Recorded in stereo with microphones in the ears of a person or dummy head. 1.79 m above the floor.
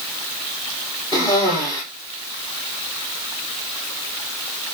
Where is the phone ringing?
I don't hear a phone ringing.